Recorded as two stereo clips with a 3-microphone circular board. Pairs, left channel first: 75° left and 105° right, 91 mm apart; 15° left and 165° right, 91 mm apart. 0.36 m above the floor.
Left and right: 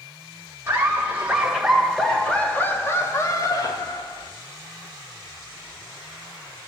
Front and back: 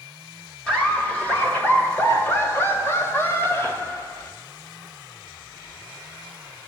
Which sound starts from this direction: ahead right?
Laughter, at 0.7 s.